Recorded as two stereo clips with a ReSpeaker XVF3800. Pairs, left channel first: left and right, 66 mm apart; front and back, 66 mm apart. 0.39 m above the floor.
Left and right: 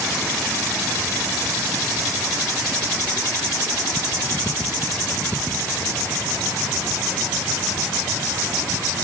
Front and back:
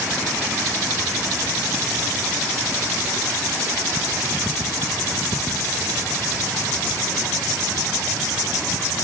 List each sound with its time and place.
Only background noise.